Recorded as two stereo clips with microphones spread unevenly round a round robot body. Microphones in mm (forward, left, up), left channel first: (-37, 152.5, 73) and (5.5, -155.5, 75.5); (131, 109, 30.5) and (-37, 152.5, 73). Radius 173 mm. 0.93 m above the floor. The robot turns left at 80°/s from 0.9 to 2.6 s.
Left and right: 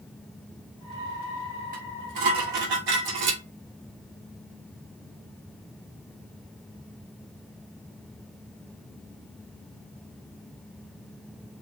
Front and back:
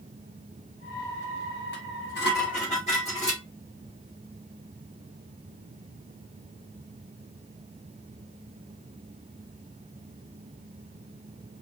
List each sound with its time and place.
1.7 s dishes clattering: 15° right, 1.4 m; by 3.4 s 85° right, 1.4 m